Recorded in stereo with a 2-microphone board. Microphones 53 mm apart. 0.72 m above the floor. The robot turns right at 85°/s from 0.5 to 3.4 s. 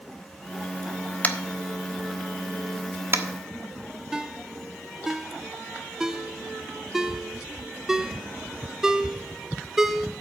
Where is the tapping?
30° left (ahead or behind), 1.2 m; by 3.2 s 40° right (ahead or behind), 1.2 m.